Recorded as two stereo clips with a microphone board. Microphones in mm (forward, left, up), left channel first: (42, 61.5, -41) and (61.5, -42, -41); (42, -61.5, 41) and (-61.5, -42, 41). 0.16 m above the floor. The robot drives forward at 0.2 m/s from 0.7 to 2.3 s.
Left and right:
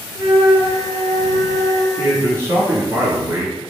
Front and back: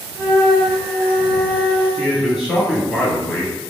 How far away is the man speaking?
About 1.1 m.